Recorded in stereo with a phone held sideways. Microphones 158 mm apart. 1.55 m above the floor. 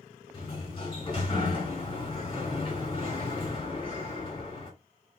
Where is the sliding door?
35° left (ahead or behind), 2 m.